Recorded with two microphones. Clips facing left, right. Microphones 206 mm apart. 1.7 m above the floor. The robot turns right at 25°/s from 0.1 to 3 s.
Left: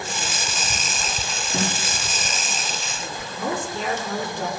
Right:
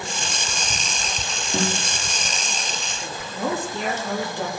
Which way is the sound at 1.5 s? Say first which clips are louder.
Right 2 dB; 45° right (ahead or behind).